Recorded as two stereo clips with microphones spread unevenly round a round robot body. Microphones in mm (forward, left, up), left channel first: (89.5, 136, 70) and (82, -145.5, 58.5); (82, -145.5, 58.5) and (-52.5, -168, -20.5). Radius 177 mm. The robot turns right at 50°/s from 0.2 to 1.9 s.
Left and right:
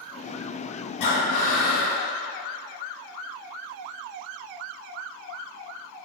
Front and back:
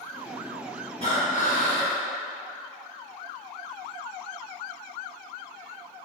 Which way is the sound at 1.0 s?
115° left.